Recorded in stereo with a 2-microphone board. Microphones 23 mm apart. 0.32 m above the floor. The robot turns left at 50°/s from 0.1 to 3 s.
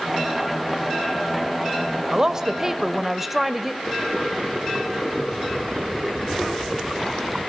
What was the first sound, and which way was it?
A woman speaking, 120° right.